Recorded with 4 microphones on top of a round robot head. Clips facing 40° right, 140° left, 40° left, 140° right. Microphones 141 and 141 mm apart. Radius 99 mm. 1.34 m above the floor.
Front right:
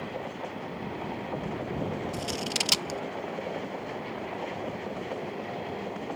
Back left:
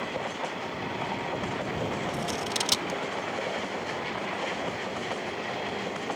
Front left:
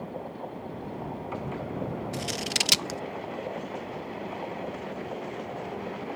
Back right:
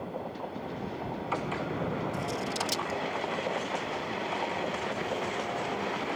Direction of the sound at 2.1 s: 40° left.